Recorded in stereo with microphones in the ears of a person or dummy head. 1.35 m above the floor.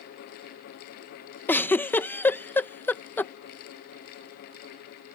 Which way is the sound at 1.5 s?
10° left (ahead or behind).